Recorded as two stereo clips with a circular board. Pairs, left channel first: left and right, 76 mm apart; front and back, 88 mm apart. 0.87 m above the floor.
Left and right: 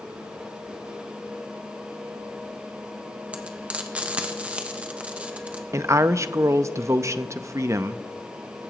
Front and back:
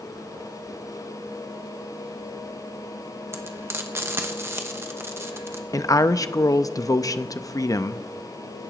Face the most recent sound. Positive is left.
turn(degrees=-45)